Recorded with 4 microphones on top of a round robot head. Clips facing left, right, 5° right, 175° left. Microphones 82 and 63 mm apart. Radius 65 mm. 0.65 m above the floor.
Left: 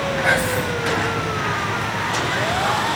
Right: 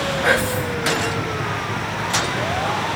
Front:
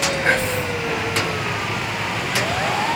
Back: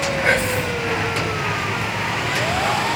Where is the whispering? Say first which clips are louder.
Right 1 dB, back 2 dB; 105° right, 2.5 m.